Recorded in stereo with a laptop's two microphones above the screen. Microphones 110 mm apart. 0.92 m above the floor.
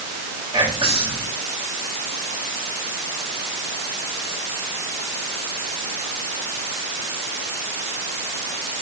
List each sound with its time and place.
0.5 s whispering: 55° right (ahead or behind), 2 m